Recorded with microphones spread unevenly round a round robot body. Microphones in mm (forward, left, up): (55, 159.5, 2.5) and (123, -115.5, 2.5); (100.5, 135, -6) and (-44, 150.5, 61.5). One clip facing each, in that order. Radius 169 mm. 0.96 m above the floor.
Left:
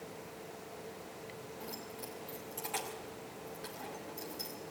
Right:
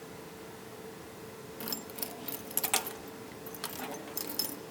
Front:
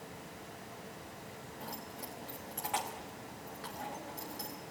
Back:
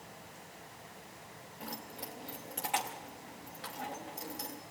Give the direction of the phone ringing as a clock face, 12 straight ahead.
I don't hear a phone ringing.